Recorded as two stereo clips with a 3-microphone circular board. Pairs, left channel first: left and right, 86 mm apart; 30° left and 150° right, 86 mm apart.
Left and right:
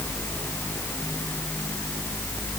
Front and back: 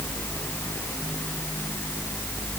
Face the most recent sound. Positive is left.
No sound to turn to.